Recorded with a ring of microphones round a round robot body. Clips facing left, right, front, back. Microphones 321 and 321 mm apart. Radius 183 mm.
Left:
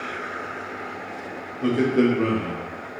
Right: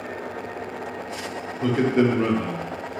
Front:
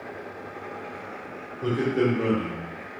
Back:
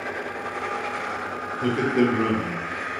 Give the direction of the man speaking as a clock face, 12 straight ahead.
5 o'clock.